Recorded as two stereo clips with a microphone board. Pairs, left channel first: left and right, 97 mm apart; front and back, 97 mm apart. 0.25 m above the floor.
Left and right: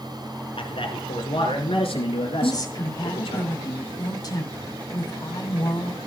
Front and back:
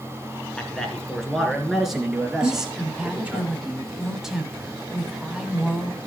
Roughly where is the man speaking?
Left.